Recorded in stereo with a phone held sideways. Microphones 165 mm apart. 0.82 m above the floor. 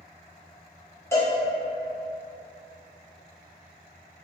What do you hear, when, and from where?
1.1 s a cowbell: 15° left (ahead or behind), 1.0 m